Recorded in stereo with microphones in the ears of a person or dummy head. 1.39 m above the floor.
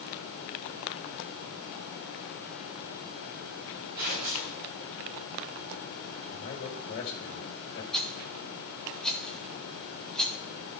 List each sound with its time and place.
4.0 s tearing paper: 50° right (ahead or behind), 5 m
6.3 s a man speaking: 55° left (ahead or behind), 2.5 m
7.9 s a rattle: 5° left (ahead or behind), 0.8 m